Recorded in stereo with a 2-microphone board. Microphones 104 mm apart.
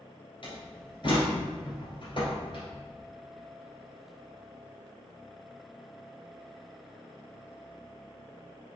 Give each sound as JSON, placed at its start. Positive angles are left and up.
{"t": 0.4, "sound": "a door slam", "side_deg": 50, "distance_m": 1.7}